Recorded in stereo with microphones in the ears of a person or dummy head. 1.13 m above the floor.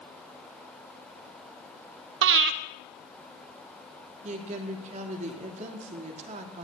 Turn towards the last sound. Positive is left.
turn(degrees=-35)  # may be behind; listen again after turning